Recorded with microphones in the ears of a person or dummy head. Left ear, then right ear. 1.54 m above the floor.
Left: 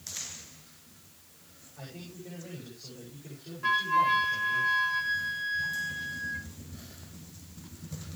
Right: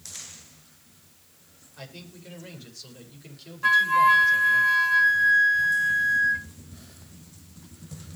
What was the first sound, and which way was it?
A man speaking, 80° right.